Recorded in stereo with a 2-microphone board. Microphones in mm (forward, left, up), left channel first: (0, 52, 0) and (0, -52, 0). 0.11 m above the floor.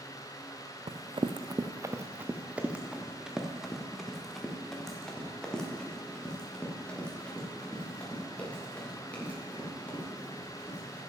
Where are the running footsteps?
70° right (ahead or behind), 0.6 m; by 11.0 s 15° left (ahead or behind), 5 m.